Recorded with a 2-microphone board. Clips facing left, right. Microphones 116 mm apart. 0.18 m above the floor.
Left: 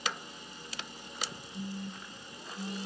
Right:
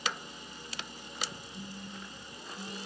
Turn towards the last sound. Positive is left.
turn(degrees=20)  # may be behind; listen again after turning